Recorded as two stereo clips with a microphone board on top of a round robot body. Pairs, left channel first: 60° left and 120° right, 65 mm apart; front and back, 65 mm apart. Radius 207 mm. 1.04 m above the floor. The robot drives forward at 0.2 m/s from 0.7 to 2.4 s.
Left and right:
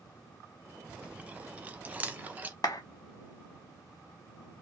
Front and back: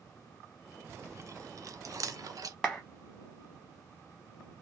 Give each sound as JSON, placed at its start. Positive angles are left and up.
{"t": 0.9, "sound": "chewing", "azimuth_deg": 175, "distance_m": 0.6}
{"t": 2.6, "sound": "a clap", "azimuth_deg": 95, "distance_m": 0.5}